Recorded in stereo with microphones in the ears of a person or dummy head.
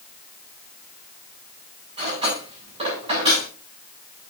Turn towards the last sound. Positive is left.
turn(degrees=-35)  # may be behind; listen again after turning